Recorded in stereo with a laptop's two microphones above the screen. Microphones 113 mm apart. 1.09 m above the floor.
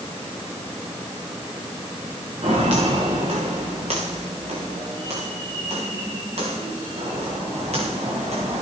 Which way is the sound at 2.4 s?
65° right (ahead or behind).